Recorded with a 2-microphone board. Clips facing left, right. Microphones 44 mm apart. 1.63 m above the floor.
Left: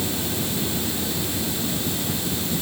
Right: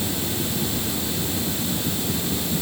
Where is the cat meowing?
I don't hear a cat meowing.